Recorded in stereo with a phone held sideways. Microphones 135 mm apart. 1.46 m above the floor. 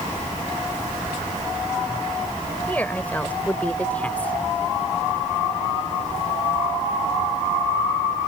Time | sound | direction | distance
2.7 | a woman speaking | 10° left (ahead or behind) | ?